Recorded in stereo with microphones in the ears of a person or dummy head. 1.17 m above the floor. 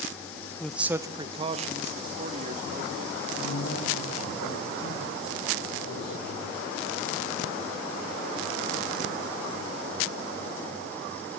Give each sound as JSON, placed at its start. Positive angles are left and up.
{"t": 0.6, "sound": "a man speaking", "side_deg": 5, "distance_m": 0.9}
{"t": 3.4, "sound": "a man speaking", "side_deg": 70, "distance_m": 6.0}